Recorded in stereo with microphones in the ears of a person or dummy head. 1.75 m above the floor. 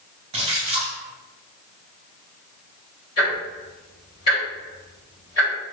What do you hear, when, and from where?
0.3 s a splash: 30° right (ahead or behind), 0.7 m
3.2 s ticking: 25° left (ahead or behind), 1.7 m